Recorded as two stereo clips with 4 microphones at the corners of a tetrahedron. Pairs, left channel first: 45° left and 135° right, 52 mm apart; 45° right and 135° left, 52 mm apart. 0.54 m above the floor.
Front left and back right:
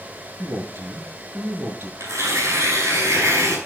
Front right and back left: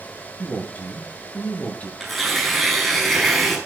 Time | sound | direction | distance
0.4 | a man speaking | 105° right | 6 m
2.0 | tearing paper | 135° right | 5.5 m